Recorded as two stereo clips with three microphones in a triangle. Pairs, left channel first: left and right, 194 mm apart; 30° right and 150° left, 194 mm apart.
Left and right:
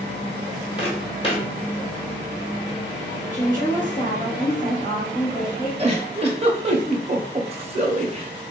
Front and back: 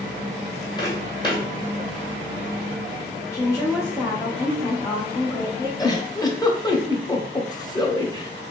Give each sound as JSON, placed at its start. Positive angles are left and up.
{"t": 0.8, "sound": "footsteps", "azimuth_deg": 35, "distance_m": 1.2}
{"t": 3.3, "sound": "a woman speaking", "azimuth_deg": 30, "distance_m": 1.1}
{"t": 5.8, "sound": "a giggle", "azimuth_deg": -80, "distance_m": 0.5}